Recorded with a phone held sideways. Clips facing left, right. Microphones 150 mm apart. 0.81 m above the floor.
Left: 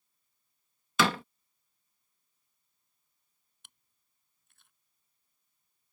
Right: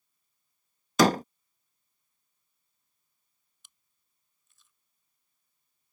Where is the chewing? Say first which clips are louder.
Left 3 dB; 60° left (ahead or behind).